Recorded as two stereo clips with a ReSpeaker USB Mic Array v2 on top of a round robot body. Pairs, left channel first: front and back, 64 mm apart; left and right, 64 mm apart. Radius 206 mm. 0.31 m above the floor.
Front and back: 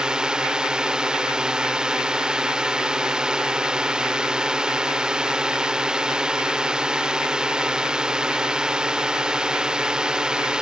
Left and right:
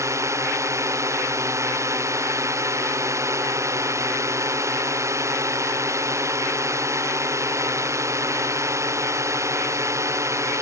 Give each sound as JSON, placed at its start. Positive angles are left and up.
{"t": 0.0, "sound": "a drone", "azimuth_deg": -105}